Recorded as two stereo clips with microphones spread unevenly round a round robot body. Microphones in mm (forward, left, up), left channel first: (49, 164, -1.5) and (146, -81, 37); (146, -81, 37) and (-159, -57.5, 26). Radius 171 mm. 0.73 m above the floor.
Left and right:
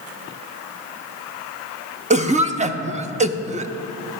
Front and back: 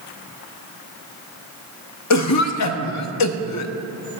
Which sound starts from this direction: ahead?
A cough, at 2.1 s.